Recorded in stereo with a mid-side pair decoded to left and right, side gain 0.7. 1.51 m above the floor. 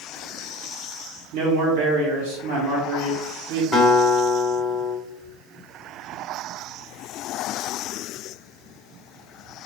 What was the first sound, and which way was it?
A man speaking, 70° right.